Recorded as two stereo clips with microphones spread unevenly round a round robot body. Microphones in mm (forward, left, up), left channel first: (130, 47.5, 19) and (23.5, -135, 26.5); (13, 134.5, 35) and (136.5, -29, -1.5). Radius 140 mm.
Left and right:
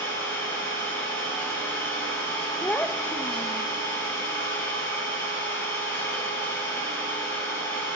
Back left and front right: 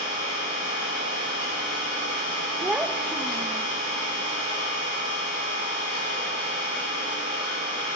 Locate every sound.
0.0 s an engine running: 145° left, 6.5 m
2.6 s a child speaking: 5° right, 0.5 m